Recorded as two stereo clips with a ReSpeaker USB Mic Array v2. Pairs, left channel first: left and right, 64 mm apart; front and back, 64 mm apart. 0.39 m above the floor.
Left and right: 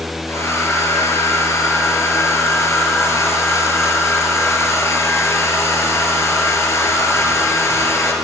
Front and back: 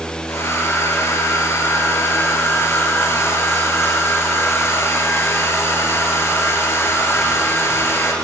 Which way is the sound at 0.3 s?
45° left.